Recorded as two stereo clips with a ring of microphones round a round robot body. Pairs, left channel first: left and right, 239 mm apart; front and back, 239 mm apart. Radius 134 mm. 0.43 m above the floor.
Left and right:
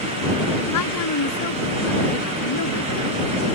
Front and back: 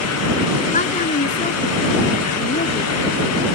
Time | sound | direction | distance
0.7 | a woman speaking | 60° left | ?